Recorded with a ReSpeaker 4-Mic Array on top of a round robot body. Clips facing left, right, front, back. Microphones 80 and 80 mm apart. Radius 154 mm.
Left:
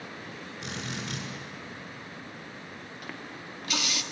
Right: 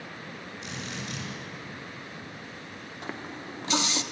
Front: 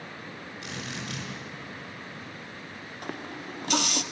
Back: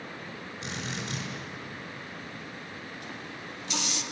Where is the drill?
115° left, 6 m.